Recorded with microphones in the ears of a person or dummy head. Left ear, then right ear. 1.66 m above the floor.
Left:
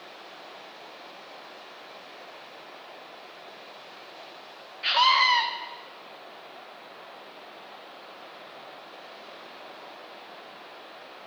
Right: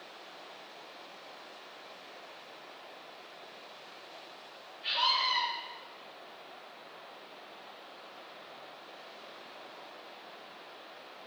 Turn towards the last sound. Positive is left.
turn(degrees=55)  # may be behind; listen again after turning